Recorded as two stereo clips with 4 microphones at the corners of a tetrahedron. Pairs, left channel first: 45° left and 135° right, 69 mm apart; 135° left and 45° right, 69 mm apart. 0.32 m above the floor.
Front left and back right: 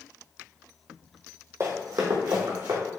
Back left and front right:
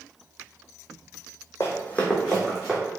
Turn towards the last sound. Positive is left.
turn(degrees=-135)